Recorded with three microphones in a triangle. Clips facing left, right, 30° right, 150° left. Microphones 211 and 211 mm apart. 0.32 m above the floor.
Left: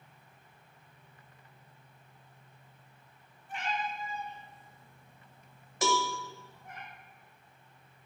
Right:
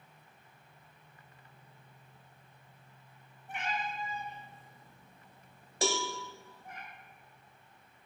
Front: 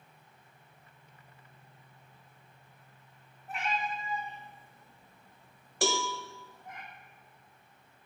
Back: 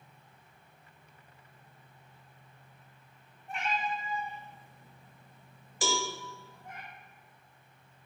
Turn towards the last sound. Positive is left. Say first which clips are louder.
# left 2 dB, front 2 dB
turn(degrees=-35)